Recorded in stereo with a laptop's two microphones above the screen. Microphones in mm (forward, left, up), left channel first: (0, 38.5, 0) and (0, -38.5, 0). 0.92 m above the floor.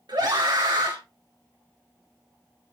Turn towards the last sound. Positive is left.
turn(degrees=-65)  # may be behind; listen again after turning